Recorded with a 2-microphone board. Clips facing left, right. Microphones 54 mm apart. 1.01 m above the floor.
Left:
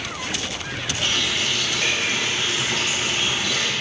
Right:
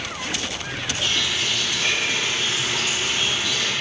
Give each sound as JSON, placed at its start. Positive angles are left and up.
{"t": 1.0, "sound": "a running tap", "side_deg": 70, "distance_m": 4.0}